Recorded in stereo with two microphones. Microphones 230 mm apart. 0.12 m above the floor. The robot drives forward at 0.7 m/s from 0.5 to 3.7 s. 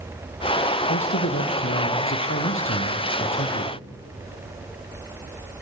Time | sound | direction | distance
0.9 | a man speaking | 65° left (ahead or behind) | 3 m